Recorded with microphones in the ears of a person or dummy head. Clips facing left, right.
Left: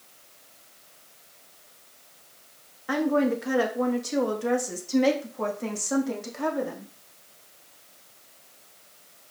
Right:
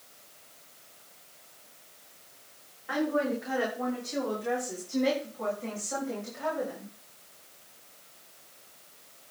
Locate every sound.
2.9 s a woman speaking: 70° left (ahead or behind), 2.5 m; by 6.9 s 80° left, 4 m